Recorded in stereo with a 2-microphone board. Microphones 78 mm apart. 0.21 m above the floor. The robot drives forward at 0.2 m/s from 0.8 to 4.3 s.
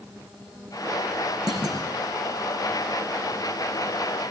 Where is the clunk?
55° right (ahead or behind), 4 m; by 1.9 s 50° right (ahead or behind), 4.5 m.